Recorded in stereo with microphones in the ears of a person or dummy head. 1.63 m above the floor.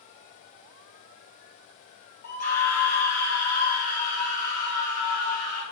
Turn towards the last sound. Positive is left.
turn(degrees=55)  # may be behind; listen again after turning